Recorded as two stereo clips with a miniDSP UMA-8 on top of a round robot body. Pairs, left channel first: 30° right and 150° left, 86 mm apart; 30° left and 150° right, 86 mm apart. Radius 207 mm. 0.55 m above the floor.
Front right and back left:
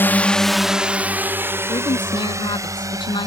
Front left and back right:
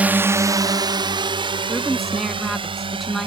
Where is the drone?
85° right; by 3.3 s 160° right.